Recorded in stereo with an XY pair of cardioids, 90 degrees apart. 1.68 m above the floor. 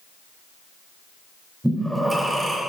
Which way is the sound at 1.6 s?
10° right.